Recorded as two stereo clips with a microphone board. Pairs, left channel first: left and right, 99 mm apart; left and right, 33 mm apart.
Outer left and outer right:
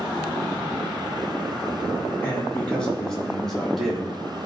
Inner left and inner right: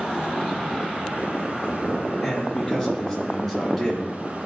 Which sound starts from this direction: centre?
A man speaking, at 2.2 s.